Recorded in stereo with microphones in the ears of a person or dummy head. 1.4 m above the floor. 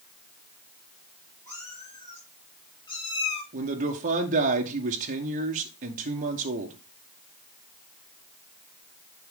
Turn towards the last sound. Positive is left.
turn(degrees=-45)  # may be behind; listen again after turning